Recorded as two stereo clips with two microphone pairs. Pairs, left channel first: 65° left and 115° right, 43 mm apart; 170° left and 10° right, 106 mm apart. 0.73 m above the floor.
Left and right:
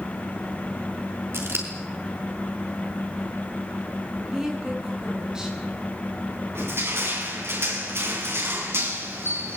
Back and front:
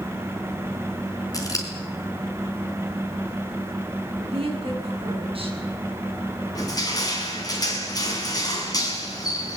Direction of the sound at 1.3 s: 135° right.